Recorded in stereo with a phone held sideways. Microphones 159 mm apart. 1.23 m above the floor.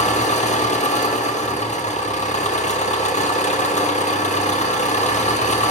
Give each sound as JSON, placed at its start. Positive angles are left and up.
{"t": 0.0, "sound": "an engine running", "side_deg": 45, "distance_m": 1.0}